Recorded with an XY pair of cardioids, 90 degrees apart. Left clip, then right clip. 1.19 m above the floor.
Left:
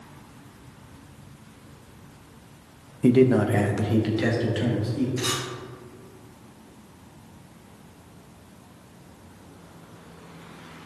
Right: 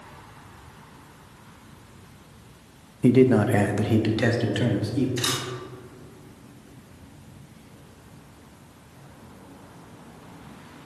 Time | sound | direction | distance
3.0 | a man speaking | straight ahead | 0.9 m
5.2 | a camera shutter | 50° right | 3.5 m